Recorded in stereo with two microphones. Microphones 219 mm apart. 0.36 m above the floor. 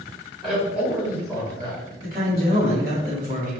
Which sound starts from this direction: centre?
A man speaking, at 0.4 s.